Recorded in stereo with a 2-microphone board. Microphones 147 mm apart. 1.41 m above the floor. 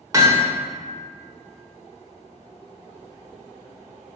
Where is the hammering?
25° right (ahead or behind), 1.5 m.